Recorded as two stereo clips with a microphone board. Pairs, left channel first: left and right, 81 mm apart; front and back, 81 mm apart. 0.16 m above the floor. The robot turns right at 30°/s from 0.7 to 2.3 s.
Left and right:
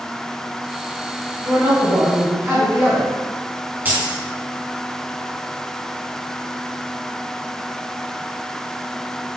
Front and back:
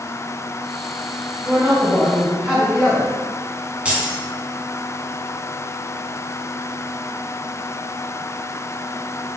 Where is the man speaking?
140° right, 1.2 m; by 3.1 s 110° right, 1.2 m.